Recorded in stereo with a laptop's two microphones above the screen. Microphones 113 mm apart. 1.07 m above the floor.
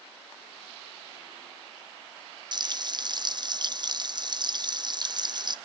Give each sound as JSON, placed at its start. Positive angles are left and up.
{"t": 2.5, "sound": "frying", "side_deg": -40, "distance_m": 0.6}